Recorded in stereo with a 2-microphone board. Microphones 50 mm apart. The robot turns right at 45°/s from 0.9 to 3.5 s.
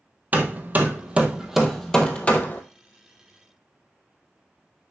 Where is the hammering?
35° right (ahead or behind), 1.5 m; by 2.6 s 40° left (ahead or behind), 1.5 m.